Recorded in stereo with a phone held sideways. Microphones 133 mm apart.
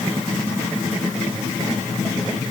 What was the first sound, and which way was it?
Only background noise.